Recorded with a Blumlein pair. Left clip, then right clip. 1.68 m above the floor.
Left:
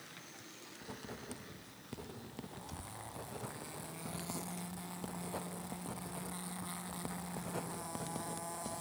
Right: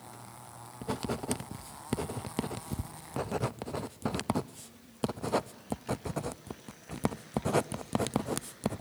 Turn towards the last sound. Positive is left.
turn(degrees=-55)